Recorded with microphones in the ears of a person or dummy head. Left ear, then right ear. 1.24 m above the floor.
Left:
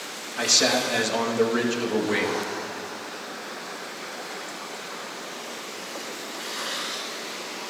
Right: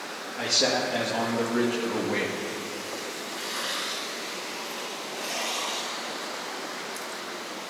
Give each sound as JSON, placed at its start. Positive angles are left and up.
{"t": 0.4, "sound": "a man speaking", "side_deg": 75, "distance_m": 1.8}